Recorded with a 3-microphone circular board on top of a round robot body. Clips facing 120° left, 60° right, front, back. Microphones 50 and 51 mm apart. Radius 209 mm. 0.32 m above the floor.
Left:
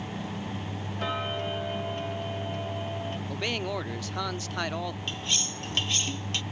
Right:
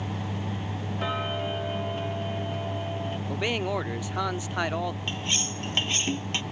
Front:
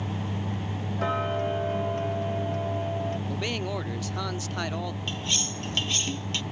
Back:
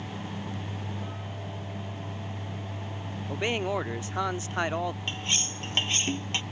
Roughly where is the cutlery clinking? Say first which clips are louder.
Right 2 dB, front 1 dB; behind right.